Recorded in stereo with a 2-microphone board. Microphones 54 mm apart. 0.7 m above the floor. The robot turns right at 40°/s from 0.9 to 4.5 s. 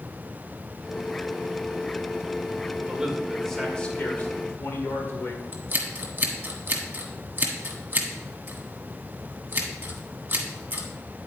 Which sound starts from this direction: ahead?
A man speaking, at 2.9 s.